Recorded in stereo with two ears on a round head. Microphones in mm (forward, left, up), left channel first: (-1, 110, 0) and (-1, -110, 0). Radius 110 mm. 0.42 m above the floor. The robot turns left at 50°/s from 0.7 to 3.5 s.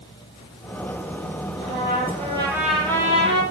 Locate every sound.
1.6 s a trumpet: 125° right, 8.5 m; by 3.4 s 145° left, 8.5 m